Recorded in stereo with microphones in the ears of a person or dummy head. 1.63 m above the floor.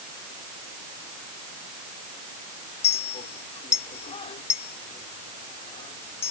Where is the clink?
30° left (ahead or behind).